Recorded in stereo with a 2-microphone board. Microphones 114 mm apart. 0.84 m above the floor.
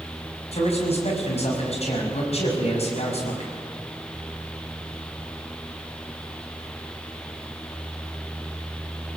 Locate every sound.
0.5 s a man speaking: 65° left (ahead or behind), 6 m